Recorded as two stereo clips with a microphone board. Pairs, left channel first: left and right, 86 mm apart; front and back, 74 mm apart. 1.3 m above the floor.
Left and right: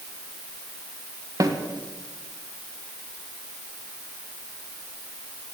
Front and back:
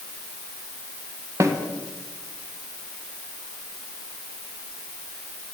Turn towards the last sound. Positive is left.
turn(degrees=-135)